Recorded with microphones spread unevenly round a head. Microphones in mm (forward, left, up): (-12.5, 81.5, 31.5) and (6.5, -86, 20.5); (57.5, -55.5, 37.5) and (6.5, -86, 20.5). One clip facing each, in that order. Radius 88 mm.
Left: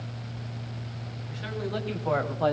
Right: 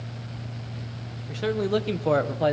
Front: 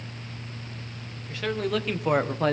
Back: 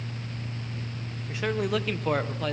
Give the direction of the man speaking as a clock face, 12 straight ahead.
3 o'clock.